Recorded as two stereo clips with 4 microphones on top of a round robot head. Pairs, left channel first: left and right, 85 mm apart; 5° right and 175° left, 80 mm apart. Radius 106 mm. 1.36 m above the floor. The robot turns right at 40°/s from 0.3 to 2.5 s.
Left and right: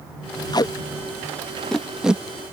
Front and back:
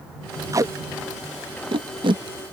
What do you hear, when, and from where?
0.5 s tape being pulled: 125° left; by 2.2 s 165° right